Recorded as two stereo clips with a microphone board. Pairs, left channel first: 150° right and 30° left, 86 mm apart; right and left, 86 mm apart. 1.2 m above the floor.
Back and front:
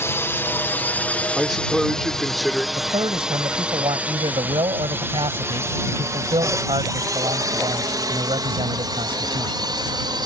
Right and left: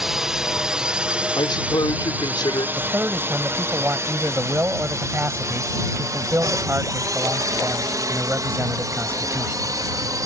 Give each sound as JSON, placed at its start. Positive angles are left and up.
{"t": 0.0, "sound": "a drone", "azimuth_deg": 175}
{"t": 1.4, "sound": "a man speaking", "azimuth_deg": -60}
{"t": 2.8, "sound": "a man speaking", "azimuth_deg": 25}